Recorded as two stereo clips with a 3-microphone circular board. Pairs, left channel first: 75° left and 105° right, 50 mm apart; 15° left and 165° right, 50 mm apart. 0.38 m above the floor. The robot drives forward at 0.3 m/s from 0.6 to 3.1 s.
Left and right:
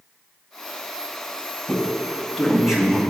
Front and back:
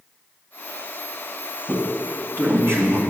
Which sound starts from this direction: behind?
A man speaking, at 1.7 s.